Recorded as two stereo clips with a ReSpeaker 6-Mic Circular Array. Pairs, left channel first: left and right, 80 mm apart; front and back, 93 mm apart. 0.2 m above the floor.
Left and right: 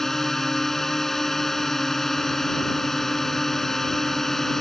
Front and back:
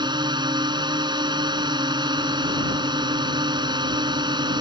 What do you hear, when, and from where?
0.0 s a drone: 175° left